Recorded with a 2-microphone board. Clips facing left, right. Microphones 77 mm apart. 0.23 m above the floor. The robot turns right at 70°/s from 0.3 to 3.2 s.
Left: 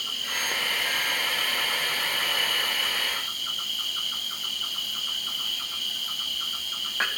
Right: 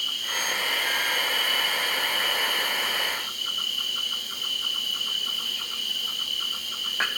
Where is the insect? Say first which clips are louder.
Right 1 dB; 35° left, 1.6 m; by 7.2 s 120° right, 1.6 m.